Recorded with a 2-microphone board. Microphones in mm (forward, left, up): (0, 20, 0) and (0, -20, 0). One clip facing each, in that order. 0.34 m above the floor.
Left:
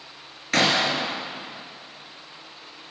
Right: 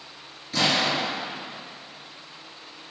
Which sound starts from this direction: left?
A gunshot, at 0.5 s.